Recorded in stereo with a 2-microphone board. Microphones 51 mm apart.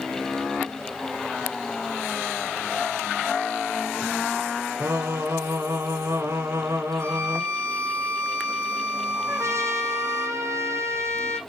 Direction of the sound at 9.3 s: 65° right (ahead or behind).